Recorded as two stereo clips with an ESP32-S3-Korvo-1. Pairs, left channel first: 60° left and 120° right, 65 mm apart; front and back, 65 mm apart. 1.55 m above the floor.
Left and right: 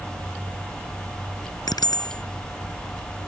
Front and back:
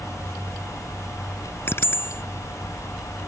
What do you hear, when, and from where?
1.6 s a bicycle bell: 50° left